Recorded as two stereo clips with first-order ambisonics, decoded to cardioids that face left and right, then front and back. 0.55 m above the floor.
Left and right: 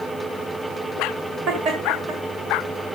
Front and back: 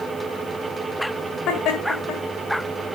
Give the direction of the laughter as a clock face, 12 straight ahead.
1 o'clock.